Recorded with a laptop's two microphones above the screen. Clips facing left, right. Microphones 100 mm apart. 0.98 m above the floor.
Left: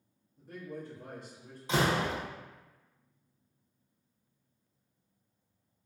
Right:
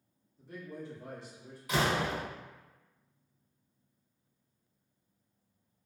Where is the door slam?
25° left (ahead or behind), 1.0 m.